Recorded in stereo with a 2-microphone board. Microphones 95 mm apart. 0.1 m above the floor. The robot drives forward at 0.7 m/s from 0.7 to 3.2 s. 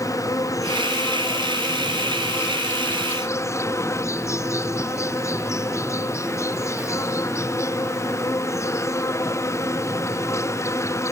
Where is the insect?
30° left (ahead or behind).